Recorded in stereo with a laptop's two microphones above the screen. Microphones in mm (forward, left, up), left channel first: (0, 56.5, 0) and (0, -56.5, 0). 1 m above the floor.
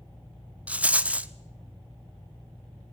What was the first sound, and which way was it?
A rattle, 10° right (ahead or behind).